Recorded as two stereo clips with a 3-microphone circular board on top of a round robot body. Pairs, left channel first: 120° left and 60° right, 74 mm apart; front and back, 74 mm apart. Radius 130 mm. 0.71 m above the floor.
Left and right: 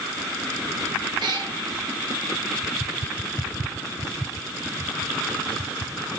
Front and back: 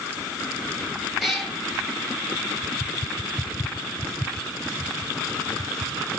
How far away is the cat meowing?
About 5 m.